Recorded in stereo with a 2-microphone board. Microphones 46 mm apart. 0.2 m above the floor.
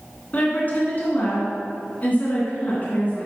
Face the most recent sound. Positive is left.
turn(degrees=35)  # may be behind; listen again after turning